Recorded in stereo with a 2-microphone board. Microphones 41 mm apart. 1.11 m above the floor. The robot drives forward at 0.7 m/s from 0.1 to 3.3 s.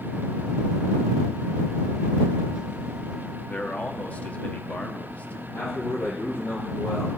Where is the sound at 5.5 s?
80° left, 5.5 m.